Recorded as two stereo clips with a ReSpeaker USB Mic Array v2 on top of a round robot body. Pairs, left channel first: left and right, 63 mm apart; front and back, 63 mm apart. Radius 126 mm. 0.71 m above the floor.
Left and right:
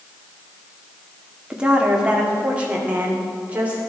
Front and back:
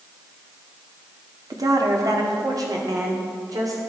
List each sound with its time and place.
1.5 s a woman speaking: 165° right, 2 m; by 3.8 s 155° right, 3 m